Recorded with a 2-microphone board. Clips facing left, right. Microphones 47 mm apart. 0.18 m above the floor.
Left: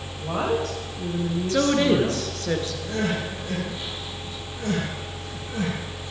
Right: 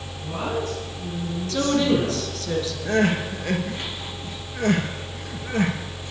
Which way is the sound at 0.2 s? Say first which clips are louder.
Left 3 dB; 70° left (ahead or behind).